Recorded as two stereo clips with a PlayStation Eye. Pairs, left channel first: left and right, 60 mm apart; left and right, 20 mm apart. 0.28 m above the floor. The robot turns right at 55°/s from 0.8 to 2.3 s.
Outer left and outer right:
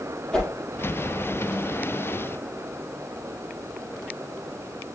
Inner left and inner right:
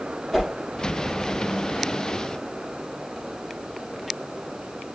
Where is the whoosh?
10° left (ahead or behind), 5 m.